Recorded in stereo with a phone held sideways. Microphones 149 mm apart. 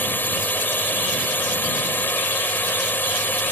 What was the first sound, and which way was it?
A drone, 10° left (ahead or behind).